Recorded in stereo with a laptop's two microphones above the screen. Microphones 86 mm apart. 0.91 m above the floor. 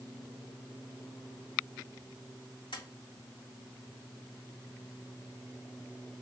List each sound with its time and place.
2.7 s tapping: 70° left (ahead or behind), 2.5 m